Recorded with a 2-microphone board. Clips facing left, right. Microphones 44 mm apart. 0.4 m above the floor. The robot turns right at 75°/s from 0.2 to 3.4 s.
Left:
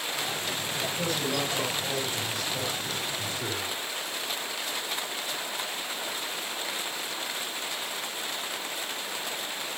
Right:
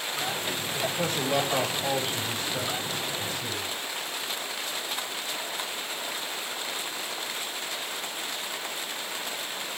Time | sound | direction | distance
0.7 | a man speaking | 160° right | 3 m